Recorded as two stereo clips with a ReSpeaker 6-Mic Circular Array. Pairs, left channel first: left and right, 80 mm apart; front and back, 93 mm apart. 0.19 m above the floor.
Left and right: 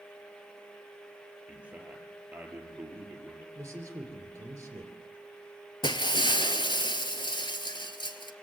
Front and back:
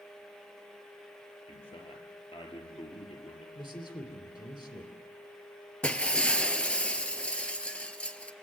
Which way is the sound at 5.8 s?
75° left.